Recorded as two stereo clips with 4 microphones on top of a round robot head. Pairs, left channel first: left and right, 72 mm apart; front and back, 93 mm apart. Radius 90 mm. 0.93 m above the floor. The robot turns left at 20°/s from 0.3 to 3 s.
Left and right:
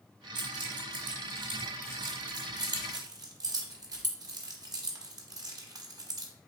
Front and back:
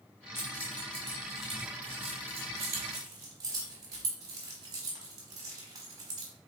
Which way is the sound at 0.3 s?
70° right.